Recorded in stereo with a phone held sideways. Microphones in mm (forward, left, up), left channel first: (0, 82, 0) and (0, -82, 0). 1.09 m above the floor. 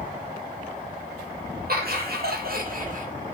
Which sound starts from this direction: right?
Laughter, at 1.7 s.